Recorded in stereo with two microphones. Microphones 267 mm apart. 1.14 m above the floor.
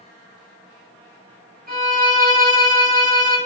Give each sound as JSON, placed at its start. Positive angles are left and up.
{"t": 1.7, "sound": "a violin", "side_deg": -30, "distance_m": 1.0}